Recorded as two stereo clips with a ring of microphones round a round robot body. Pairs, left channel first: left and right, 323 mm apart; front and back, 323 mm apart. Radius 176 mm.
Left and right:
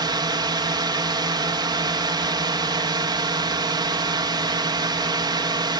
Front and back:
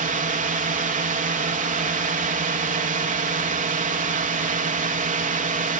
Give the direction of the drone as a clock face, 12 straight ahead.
5 o'clock.